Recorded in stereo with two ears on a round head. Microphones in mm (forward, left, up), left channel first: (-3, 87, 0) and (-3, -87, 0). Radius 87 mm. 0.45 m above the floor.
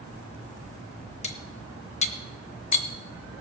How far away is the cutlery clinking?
About 0.9 m.